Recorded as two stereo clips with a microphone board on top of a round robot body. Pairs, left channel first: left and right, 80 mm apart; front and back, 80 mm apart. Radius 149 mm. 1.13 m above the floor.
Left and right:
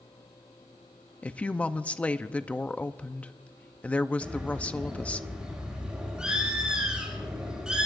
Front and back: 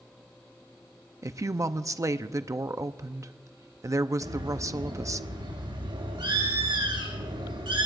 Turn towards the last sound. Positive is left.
turn(degrees=-170)